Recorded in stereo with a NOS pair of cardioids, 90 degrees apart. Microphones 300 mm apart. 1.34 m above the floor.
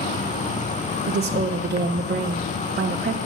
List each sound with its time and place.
0.0 s an insect: 25° left, 0.7 m
1.1 s a woman speaking: 35° right, 1.3 m